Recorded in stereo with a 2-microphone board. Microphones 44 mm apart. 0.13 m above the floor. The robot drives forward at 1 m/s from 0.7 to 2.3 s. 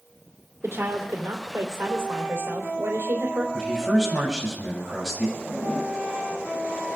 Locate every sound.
0.6 s a woman speaking: 65° right (ahead or behind), 4 m; by 3.4 s 70° right (ahead or behind), 4 m
3.5 s a man speaking: 5° left (ahead or behind), 8.5 m
5.4 s a zipper: 35° left (ahead or behind), 6.5 m